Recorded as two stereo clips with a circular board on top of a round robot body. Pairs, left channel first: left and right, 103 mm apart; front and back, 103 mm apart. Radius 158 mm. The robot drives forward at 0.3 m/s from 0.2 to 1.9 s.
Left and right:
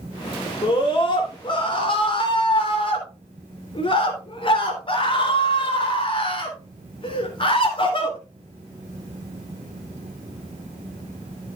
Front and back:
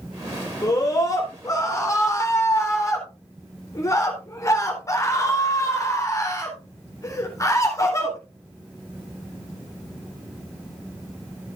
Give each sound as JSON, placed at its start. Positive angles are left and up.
{"t": 0.6, "sound": "a scream", "azimuth_deg": 50, "distance_m": 3.5}